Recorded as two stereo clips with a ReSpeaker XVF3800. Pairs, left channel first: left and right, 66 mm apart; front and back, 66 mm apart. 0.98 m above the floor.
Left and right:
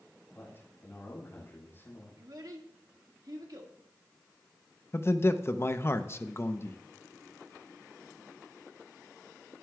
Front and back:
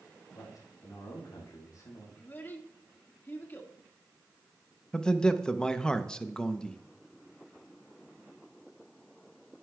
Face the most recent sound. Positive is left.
turn(degrees=70)